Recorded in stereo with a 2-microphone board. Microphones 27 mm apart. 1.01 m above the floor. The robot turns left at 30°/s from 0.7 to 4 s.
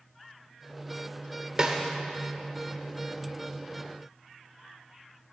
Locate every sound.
1.6 s a snare drum: 30° right (ahead or behind), 1.3 m; by 1.8 s 25° right (ahead or behind), 1.3 m